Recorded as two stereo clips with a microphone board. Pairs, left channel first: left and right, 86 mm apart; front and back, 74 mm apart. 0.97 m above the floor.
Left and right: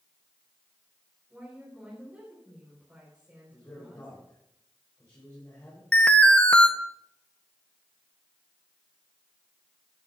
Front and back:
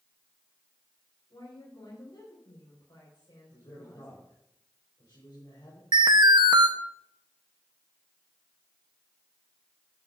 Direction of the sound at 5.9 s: 165° left.